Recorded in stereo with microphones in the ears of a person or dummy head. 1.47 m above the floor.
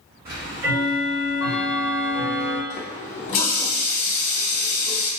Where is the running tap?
35° left (ahead or behind), 0.7 m.